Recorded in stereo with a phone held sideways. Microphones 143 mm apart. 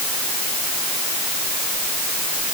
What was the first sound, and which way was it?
Only background noise.